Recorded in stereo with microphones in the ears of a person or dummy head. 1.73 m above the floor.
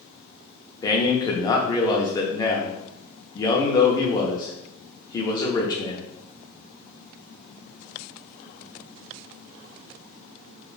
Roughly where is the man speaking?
Left.